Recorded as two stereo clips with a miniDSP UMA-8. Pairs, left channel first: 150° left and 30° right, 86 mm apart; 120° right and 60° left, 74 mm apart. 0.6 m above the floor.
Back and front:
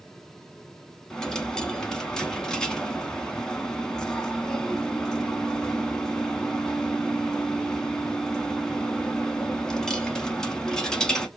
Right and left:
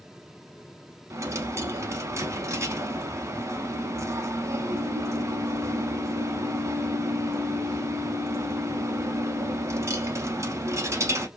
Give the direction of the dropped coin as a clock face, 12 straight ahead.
10 o'clock.